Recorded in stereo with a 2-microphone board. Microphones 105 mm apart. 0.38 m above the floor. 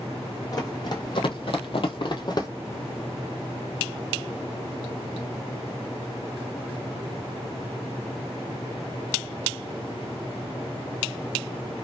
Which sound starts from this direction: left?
Running footsteps, at 0.5 s.